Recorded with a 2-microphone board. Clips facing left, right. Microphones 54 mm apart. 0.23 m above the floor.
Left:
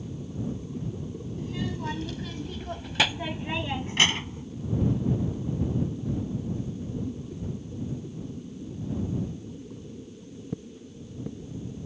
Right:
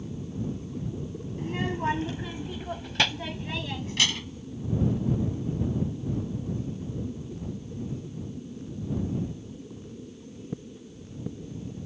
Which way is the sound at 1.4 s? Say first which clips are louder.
Right 4 dB; 45° right (ahead or behind).